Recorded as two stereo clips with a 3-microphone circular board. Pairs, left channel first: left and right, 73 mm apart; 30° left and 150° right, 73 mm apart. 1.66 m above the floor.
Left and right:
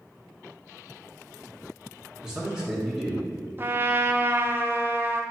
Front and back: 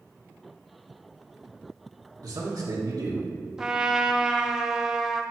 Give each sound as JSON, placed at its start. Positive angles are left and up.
{"t": 2.2, "sound": "a man speaking", "azimuth_deg": -170, "distance_m": 1.1}
{"t": 3.6, "sound": "a trumpet", "azimuth_deg": -75, "distance_m": 0.5}